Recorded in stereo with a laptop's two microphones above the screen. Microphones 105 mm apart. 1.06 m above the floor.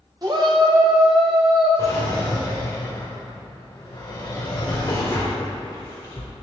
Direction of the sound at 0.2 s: 40° right (ahead or behind).